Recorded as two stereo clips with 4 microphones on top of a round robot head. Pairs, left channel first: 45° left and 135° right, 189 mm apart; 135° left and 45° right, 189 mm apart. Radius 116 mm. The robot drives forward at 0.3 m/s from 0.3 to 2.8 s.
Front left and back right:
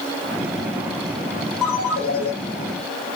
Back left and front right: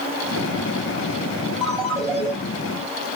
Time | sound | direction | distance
1.6 | a ringtone | 40° left | 5 m